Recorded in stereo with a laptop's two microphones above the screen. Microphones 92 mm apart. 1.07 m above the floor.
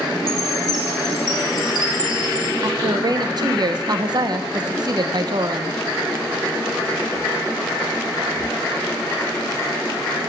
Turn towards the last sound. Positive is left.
turn(degrees=-50)  # may be behind; listen again after turning